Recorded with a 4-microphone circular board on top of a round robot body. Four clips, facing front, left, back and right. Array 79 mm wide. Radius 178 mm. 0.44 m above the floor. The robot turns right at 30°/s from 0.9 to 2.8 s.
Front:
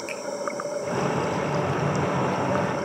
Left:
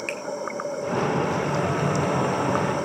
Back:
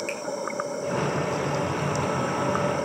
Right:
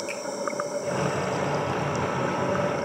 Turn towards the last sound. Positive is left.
turn(degrees=160)